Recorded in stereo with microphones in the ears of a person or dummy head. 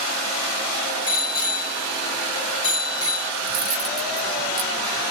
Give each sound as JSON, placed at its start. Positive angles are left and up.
{"t": 1.1, "sound": "a bicycle bell", "side_deg": 35, "distance_m": 3.0}
{"t": 3.4, "sound": "cutlery clinking", "side_deg": -25, "distance_m": 1.2}